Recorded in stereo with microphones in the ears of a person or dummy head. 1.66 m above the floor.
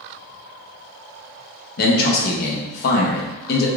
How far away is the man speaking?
About 0.8 m.